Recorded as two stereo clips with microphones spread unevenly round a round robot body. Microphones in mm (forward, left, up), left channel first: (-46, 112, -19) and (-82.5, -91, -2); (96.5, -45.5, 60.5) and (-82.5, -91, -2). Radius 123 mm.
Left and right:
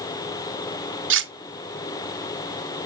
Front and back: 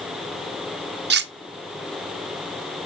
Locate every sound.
1.1 s cutlery clinking: 130° right, 0.6 m